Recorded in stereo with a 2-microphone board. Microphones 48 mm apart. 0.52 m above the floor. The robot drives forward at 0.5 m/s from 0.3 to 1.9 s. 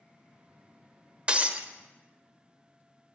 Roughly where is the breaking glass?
Right.